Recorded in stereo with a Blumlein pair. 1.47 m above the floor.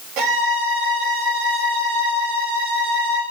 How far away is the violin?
About 5 m.